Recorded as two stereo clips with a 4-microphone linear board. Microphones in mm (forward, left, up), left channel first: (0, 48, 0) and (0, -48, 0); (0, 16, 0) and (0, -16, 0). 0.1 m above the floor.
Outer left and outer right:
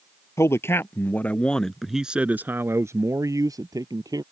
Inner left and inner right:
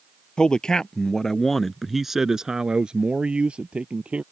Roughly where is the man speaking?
Left.